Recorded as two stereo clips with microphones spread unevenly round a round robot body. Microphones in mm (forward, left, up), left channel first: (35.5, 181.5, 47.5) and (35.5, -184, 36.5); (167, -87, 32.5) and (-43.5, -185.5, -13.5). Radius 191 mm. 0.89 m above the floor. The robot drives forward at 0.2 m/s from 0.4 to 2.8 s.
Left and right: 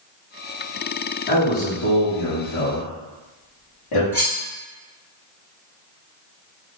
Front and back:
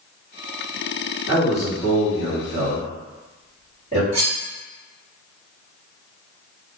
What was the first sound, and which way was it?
A man speaking, 90° left.